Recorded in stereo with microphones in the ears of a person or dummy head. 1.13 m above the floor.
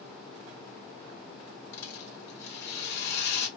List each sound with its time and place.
1.7 s a rattle: 65° left (ahead or behind), 2.5 m